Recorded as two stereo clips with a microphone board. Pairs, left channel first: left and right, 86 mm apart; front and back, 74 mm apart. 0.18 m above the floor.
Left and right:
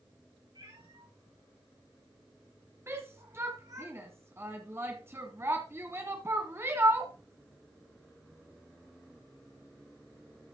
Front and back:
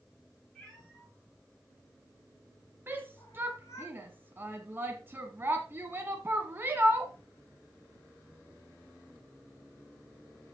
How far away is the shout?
About 1.4 m.